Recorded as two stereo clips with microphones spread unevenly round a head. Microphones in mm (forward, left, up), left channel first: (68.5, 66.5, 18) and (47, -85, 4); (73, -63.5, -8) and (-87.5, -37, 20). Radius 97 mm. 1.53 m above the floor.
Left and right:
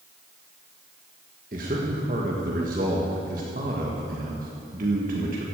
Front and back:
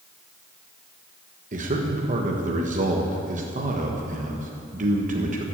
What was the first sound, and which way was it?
A man speaking, 150° right.